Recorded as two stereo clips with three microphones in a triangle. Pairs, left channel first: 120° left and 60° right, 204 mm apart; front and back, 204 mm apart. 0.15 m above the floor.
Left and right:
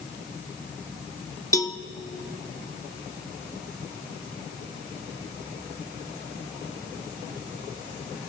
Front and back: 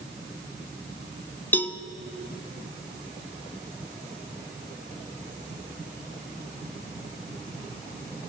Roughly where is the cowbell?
Ahead left.